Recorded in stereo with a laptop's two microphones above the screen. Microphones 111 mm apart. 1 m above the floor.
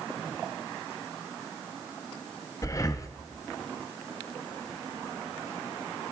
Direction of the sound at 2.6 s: 30° left (ahead or behind).